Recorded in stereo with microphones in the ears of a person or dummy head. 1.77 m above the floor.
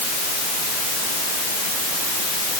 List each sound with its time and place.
Only background noise.